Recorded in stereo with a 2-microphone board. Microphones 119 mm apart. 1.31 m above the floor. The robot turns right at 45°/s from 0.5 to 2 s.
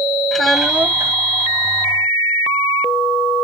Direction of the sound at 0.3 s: 5° left (ahead or behind).